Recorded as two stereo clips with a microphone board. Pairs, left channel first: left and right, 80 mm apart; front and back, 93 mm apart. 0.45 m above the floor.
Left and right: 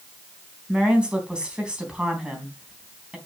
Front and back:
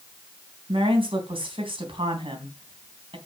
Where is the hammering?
I don't hear hammering.